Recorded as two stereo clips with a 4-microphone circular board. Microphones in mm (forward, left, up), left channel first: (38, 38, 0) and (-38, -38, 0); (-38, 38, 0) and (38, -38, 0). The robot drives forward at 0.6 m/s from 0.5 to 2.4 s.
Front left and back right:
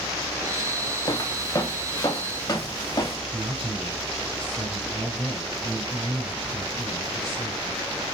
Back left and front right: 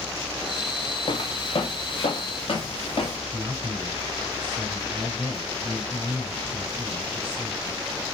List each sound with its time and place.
1.1 s footsteps: 90° left, 1.2 m; by 3.2 s 100° left, 3.5 m
3.3 s a man speaking: 125° right, 1.7 m